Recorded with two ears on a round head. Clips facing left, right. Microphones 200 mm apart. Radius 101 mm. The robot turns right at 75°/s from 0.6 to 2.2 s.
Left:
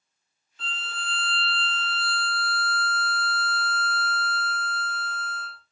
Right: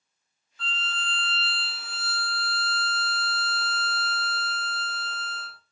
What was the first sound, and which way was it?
A violin, 20° left (ahead or behind).